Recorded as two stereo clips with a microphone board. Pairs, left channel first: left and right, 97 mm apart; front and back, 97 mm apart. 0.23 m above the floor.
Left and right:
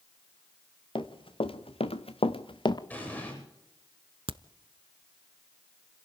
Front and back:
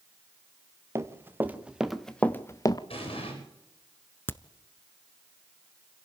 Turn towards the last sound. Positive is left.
turn(degrees=-65)